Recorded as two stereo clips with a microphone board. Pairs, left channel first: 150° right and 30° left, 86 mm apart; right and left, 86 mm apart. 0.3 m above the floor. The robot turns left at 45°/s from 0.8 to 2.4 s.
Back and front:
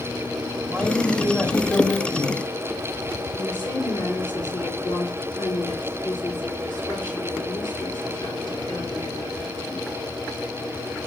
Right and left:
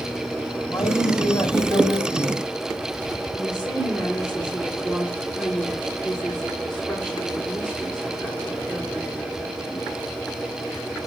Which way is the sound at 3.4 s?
Straight behind.